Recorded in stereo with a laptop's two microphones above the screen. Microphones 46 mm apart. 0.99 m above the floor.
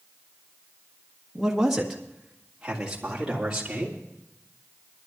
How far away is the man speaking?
About 1.2 m.